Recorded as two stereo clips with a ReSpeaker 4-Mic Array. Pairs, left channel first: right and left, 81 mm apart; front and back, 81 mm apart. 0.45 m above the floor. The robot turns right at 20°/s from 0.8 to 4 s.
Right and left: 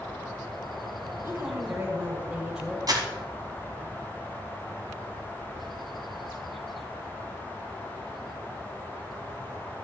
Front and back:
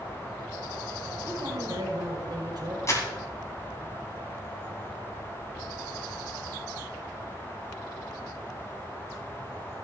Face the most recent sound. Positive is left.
turn(degrees=75)